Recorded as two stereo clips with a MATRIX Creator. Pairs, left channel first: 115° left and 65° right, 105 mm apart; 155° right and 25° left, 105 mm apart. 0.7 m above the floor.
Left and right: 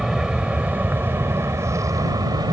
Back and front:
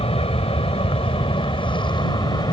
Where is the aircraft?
150° right; by 2.5 s 115° right.